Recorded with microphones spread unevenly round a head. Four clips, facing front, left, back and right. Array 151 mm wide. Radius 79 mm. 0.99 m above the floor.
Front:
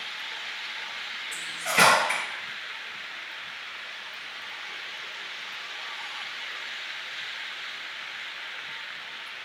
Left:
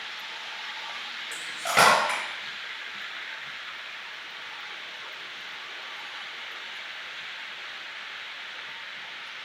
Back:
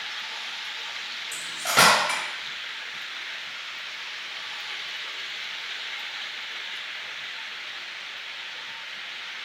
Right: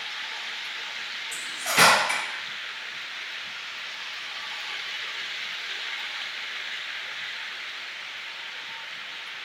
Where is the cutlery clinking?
145° left, 1.4 m.